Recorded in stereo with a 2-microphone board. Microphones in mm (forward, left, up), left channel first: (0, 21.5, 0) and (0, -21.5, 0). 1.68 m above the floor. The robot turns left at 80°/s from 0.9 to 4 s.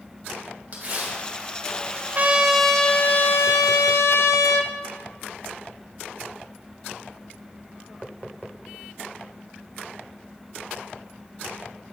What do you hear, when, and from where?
0.7 s tearing paper: 40° right (ahead or behind), 2 m; by 1.2 s 50° right (ahead or behind), 2 m
2.1 s a trumpet: 140° right, 0.5 m; by 4.7 s 70° left, 0.5 m